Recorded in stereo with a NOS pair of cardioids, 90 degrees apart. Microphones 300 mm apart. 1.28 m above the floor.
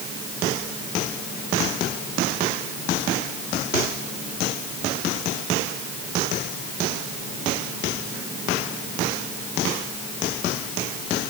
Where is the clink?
I don't hear a clink.